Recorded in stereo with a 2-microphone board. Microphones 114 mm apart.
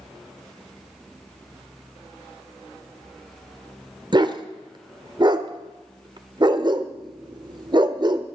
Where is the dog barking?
40° right (ahead or behind), 0.9 m.